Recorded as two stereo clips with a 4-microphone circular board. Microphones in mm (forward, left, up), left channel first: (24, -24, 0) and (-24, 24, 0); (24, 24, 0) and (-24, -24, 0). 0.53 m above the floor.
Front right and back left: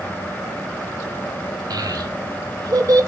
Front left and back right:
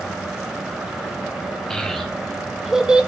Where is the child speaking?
130° left, 2 m; by 3.1 s 160° left, 0.7 m.